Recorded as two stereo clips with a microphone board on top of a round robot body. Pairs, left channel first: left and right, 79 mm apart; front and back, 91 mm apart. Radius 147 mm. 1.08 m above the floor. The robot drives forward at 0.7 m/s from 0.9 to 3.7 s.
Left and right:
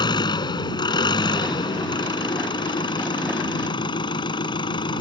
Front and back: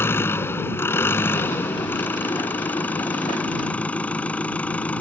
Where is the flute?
No flute in this recording.